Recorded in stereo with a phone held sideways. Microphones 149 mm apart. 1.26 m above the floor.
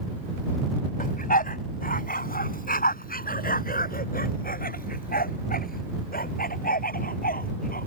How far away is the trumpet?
I don't hear a trumpet.